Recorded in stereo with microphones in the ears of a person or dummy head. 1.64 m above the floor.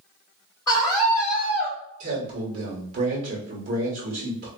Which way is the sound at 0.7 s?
20° left (ahead or behind).